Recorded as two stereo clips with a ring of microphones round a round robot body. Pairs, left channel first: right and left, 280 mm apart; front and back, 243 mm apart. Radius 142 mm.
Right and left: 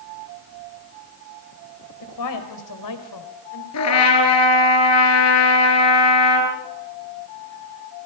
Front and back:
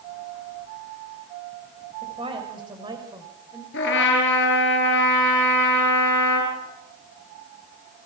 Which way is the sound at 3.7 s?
55° right.